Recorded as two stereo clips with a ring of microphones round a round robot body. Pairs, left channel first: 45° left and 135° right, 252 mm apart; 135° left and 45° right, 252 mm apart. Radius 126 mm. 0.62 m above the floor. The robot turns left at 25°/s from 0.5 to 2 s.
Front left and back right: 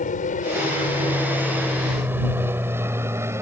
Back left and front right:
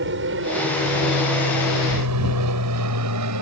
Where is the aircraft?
10° right; by 3.4 s 55° right.